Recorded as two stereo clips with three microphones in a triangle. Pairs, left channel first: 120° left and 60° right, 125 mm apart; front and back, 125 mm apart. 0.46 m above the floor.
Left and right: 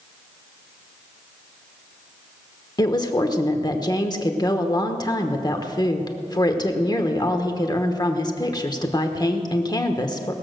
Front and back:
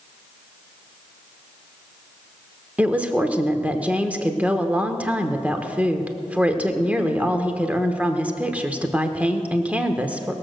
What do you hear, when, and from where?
2.8 s a woman speaking: 110° left, 1.1 m